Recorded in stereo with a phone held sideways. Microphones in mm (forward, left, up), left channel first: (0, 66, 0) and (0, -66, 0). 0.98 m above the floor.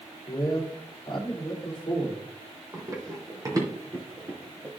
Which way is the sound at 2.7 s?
30° right (ahead or behind).